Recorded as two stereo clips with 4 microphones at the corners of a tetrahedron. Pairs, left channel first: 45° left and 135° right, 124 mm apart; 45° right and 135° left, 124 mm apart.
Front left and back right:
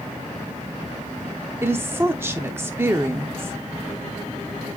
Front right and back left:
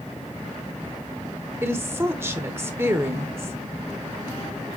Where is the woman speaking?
175° left, 0.8 m.